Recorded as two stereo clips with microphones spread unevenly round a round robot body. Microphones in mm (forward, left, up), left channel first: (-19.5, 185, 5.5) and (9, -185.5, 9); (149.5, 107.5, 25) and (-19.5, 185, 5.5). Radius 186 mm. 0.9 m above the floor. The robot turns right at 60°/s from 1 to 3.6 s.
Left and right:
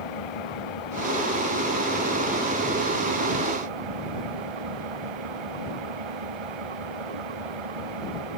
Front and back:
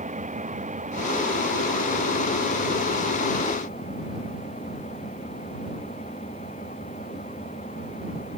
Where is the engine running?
105° left; by 8.4 s 100° right.